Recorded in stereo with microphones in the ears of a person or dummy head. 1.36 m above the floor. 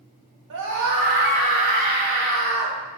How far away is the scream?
About 1.7 m.